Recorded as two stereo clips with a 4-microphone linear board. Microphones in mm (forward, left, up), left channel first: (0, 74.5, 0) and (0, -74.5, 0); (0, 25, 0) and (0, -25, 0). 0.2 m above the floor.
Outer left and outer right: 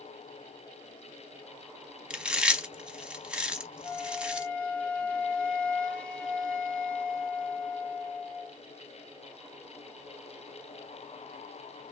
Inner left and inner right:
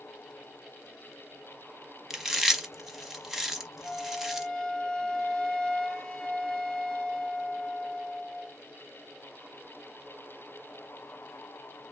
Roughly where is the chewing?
Centre.